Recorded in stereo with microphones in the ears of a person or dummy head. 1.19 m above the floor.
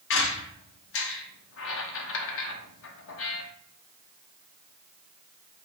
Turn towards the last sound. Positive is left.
turn(degrees=75)  # may be behind; listen again after turning